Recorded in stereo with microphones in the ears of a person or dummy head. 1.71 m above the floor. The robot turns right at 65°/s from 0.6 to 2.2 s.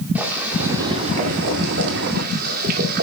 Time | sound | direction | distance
0.1 | boiling | 170° right | 2 m